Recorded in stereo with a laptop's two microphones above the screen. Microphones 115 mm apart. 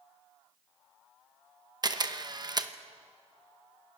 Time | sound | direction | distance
1.8 | a camera shutter | 35° right (ahead or behind) | 1.0 m